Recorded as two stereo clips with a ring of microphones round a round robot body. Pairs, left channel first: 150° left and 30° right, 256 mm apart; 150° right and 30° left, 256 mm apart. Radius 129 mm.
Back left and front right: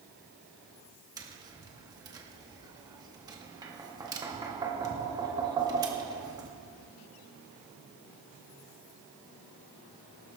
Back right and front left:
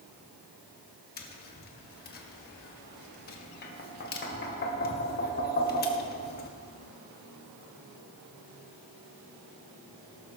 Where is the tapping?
105° right, 1.4 m.